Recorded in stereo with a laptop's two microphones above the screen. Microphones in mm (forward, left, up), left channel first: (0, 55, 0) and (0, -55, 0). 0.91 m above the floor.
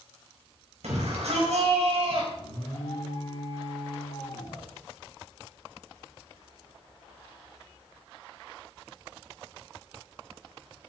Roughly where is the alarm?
Left.